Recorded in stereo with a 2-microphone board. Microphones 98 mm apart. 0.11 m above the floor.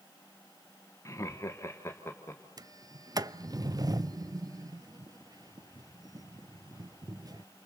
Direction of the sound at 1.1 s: 30° left (ahead or behind).